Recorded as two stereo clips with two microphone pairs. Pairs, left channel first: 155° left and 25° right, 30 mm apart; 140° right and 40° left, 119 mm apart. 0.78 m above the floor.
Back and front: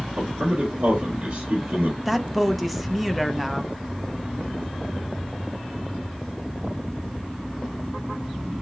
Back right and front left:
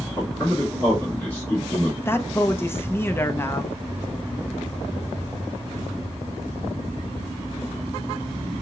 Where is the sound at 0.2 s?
65° right, 2.5 m.